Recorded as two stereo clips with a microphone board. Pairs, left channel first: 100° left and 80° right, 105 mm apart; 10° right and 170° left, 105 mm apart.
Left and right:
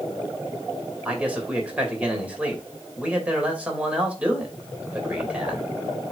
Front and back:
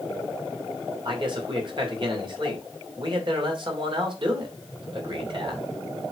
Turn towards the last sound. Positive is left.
turn(degrees=-155)